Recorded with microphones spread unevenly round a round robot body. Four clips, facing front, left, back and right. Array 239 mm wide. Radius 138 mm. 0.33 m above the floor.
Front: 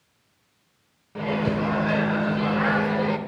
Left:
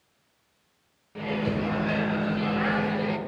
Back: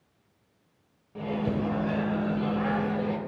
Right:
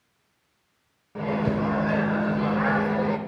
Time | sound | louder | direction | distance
1.1 | a microwave | right 3 dB, front 4 dB | 35° right | 0.7 m